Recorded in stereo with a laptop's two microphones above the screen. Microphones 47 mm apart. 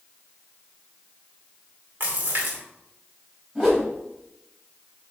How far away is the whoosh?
About 3.5 m.